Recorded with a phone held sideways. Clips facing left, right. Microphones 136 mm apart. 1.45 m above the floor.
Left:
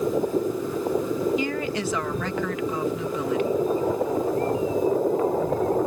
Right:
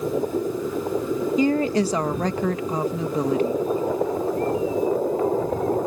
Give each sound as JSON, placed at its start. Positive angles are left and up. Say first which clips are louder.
{"t": 1.4, "sound": "a woman speaking", "louder": "right 7 dB", "side_deg": -35}